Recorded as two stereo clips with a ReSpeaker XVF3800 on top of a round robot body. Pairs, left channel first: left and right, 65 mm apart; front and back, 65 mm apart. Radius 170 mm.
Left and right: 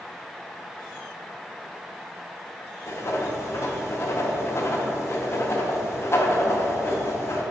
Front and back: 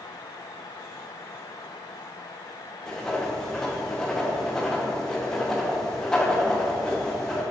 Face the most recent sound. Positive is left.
turn(degrees=75)